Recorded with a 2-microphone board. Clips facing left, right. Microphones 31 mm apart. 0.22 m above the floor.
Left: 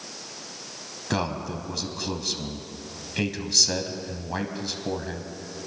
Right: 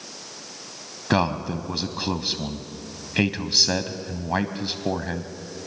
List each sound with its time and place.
1.1 s a man speaking: 30° right (ahead or behind), 1.1 m